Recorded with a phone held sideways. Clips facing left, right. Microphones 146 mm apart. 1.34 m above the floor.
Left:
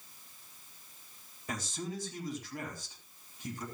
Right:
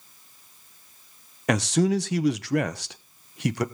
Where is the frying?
No frying in this recording.